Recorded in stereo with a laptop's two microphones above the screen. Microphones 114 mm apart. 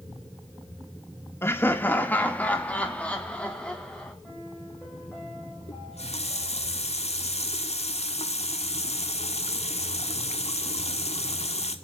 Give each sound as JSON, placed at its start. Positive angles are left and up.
{"t": 1.4, "sound": "laughter", "side_deg": 20, "distance_m": 1.3}
{"t": 4.2, "sound": "a piano", "side_deg": 10, "distance_m": 5.5}
{"t": 5.7, "sound": "a running tap", "side_deg": 75, "distance_m": 1.5}